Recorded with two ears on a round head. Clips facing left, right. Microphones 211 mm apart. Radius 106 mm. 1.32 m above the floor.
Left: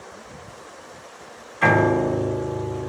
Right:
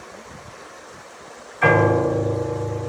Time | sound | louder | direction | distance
1.6 | a piano | right 2 dB | 45° left (ahead or behind) | 2.5 m